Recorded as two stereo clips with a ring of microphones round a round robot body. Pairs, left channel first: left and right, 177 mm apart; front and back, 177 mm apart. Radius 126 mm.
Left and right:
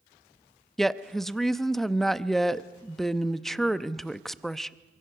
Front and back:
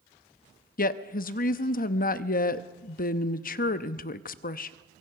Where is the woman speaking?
Straight ahead, 0.7 m.